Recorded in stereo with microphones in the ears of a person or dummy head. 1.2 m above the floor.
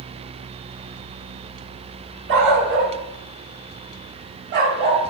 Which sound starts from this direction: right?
A dog barking, at 2.3 s.